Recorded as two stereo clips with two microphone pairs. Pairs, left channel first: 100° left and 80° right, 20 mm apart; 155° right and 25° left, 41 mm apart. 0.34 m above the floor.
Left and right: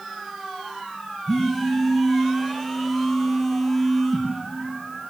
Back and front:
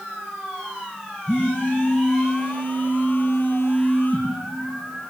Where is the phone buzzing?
175° right, 4 m.